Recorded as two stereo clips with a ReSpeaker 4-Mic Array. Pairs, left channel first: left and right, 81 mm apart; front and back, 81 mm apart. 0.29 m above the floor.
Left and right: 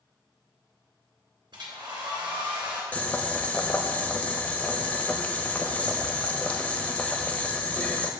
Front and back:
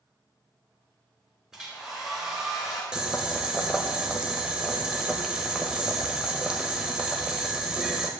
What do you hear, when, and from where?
1.5 s a hair dryer: 100° right, 2.0 m
2.9 s boiling: 120° left, 0.7 m